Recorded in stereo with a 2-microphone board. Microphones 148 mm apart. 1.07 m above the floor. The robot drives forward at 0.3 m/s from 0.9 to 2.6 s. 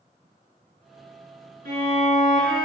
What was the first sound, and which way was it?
A violin, 75° right (ahead or behind).